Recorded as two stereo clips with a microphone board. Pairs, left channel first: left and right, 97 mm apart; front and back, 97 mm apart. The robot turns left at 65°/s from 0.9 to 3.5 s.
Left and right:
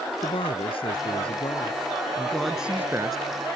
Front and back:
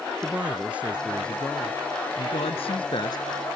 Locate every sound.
0.2 s a woman speaking: 105° left; by 3.2 s 50° right